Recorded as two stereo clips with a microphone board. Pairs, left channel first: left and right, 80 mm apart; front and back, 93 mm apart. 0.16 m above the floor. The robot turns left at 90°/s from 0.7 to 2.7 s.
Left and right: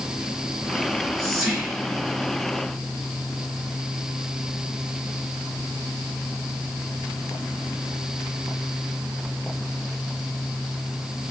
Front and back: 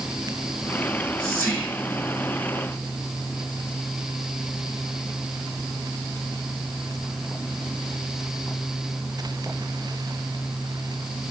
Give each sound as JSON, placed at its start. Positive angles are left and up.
{"t": 0.8, "sound": "whispering", "azimuth_deg": 45, "distance_m": 1.4}